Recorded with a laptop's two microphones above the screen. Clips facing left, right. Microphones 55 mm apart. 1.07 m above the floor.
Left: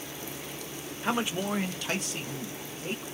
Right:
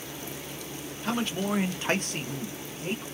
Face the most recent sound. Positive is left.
turn(degrees=-60)  # may be behind; listen again after turning